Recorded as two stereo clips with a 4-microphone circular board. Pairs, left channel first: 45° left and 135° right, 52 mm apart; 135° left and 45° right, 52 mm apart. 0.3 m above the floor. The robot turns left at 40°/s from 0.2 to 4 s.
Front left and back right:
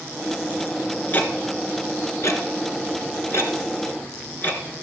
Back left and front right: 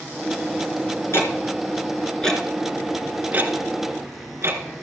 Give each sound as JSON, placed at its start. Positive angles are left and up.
{"t": 1.1, "sound": "ticking", "azimuth_deg": 105, "distance_m": 2.0}